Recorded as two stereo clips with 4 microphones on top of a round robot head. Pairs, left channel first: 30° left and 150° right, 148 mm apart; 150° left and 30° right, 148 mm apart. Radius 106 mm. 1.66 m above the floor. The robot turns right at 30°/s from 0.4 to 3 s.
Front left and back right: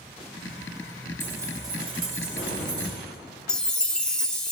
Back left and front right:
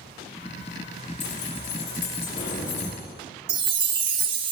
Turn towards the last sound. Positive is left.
turn(degrees=-55)